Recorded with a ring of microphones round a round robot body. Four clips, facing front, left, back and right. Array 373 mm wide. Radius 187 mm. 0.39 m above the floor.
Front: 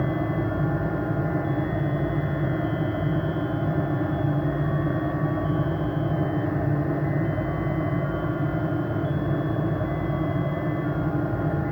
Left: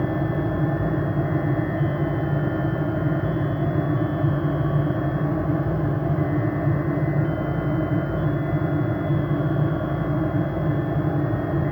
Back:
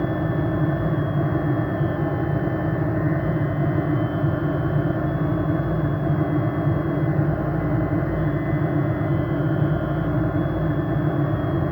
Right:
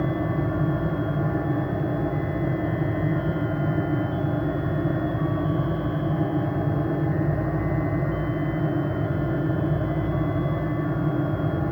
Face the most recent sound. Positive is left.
No sound to turn to.